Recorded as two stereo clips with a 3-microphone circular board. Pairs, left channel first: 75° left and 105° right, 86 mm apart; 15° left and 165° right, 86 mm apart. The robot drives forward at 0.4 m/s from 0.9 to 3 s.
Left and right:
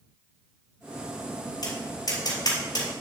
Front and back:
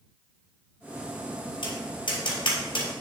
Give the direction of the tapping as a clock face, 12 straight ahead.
11 o'clock.